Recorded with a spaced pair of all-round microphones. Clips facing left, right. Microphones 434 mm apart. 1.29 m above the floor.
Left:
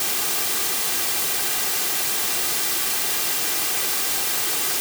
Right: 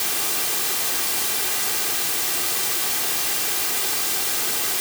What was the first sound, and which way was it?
Only background noise.